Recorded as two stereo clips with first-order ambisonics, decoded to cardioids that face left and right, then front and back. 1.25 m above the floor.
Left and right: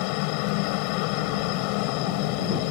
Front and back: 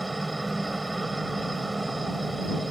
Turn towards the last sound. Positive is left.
turn(degrees=95)